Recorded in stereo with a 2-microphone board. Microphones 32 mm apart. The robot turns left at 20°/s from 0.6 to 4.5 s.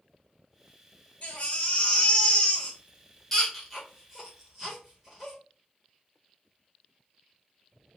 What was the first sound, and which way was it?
A baby crying, 55° left (ahead or behind).